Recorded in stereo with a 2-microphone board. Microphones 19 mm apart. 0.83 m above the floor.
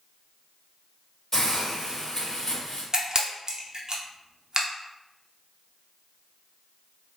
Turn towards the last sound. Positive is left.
turn(degrees=-35)  # may be behind; listen again after turning